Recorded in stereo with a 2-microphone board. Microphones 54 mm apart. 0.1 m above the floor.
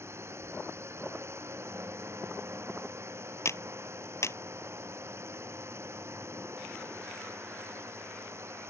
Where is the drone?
50° right (ahead or behind).